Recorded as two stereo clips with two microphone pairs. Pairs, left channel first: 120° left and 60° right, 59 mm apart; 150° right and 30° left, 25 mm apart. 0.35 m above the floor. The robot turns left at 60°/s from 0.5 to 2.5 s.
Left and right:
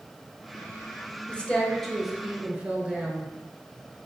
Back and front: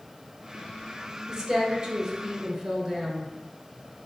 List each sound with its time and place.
1.3 s a woman speaking: 70° left, 0.9 m; by 3.3 s straight ahead, 0.9 m